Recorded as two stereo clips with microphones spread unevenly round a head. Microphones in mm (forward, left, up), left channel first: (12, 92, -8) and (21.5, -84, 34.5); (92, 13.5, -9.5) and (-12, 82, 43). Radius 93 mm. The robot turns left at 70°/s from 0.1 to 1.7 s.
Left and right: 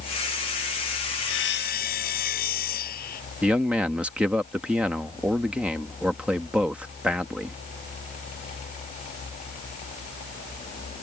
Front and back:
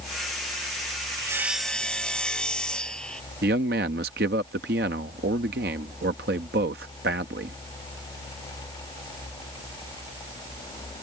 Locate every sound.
1.2 s sawing: 90° left; by 3.2 s 55° left
3.4 s a man speaking: 175° right